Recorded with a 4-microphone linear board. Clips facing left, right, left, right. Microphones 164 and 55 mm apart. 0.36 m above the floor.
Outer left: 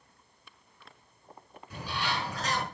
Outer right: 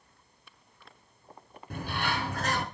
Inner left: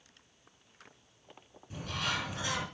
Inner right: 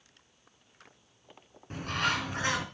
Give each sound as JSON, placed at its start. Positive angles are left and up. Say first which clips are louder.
{"t": 1.7, "sound": "a bird", "louder": "outer right 2 dB, inner right 5 dB", "side_deg": -55, "distance_m": 4.5}